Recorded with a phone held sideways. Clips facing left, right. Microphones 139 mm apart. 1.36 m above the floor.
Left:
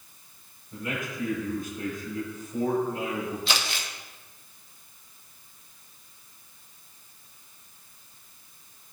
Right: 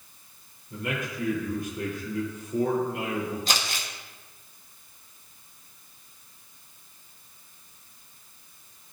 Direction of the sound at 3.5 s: 45° right (ahead or behind).